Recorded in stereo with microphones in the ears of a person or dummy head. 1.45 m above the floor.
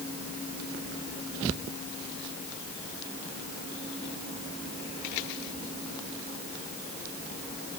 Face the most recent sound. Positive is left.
No sound to turn to.